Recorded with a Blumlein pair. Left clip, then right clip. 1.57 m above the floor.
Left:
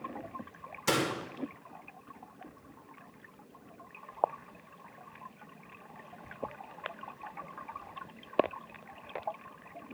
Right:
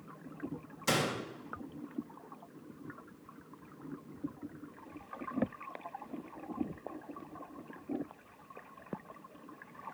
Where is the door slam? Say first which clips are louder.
Left 2 dB; 10° left, 1.9 m.